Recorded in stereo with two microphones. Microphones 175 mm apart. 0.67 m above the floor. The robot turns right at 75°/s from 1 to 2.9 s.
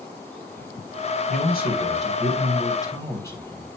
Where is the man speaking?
45° left, 2.5 m; by 3.7 s 165° left, 2.5 m.